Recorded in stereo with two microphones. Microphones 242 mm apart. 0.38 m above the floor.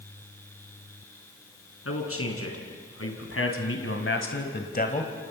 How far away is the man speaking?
About 4.5 m.